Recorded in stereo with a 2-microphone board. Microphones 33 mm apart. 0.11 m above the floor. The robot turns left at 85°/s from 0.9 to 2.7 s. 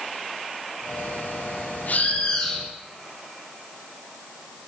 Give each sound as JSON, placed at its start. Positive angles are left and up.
{"t": 1.9, "sound": "a bird", "azimuth_deg": 60, "distance_m": 6.5}